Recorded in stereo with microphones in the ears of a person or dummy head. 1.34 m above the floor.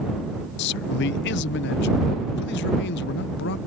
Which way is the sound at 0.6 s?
60° left (ahead or behind).